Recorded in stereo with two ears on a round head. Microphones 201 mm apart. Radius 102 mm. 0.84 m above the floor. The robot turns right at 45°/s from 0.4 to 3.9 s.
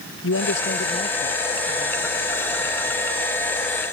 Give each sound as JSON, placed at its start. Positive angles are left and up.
{"t": 0.2, "sound": "a man speaking", "azimuth_deg": 120}